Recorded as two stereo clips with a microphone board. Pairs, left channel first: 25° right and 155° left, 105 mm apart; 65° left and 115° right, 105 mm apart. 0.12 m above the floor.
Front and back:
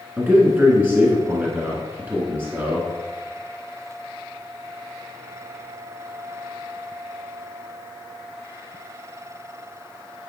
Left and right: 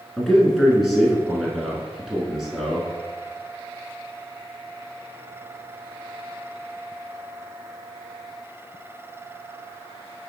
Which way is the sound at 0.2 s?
160° left.